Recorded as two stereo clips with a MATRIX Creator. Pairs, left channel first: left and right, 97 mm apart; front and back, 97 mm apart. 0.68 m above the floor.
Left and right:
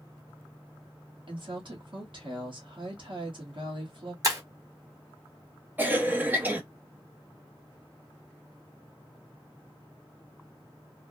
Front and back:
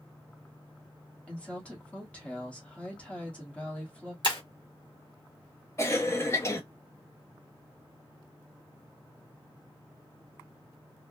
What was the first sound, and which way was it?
A woman speaking, 75° right.